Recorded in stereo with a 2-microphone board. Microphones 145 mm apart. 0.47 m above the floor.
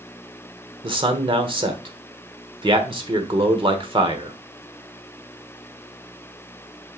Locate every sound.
0.8 s a man speaking: 35° right (ahead or behind), 1.2 m